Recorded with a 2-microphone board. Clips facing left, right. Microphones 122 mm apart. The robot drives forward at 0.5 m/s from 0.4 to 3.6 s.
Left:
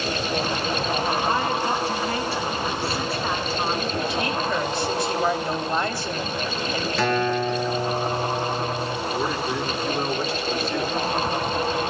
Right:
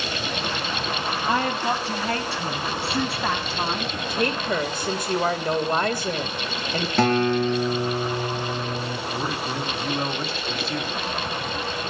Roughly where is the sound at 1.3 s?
Right.